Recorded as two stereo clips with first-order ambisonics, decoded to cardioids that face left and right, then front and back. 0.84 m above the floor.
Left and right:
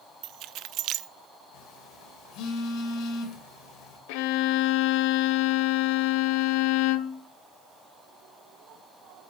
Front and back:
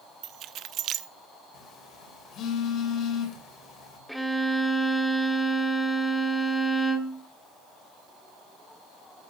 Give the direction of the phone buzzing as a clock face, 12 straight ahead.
10 o'clock.